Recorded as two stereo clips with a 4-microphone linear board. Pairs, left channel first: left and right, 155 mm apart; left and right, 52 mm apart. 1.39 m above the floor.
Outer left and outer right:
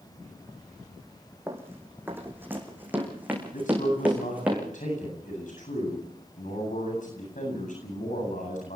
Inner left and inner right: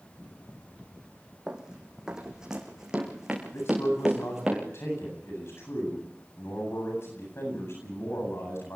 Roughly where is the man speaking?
Left.